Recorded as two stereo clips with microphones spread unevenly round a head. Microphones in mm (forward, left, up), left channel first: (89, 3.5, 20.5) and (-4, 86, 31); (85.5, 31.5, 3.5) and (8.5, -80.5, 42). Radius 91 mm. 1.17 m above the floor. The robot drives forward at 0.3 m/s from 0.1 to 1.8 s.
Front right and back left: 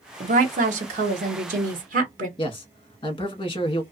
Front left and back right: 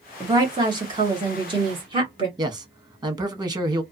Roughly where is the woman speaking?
Behind.